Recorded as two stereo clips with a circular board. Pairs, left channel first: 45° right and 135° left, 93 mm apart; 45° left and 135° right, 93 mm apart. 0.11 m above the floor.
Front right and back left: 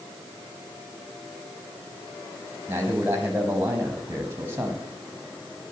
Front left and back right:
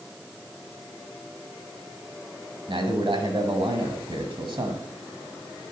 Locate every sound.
2.7 s a man speaking: 160° right, 4.5 m